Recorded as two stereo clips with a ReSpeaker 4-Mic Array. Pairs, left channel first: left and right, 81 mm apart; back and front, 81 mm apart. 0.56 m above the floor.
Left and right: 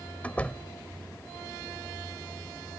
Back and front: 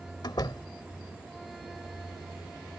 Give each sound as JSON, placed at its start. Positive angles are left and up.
{"t": 0.2, "sound": "a door slam", "azimuth_deg": 160}